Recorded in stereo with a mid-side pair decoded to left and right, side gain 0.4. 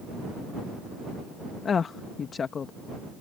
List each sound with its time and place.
1.6 s a woman speaking: 50° left